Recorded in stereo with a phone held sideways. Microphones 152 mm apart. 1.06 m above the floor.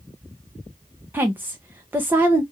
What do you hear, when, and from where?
1.1 s a woman speaking: 15° right (ahead or behind), 0.6 m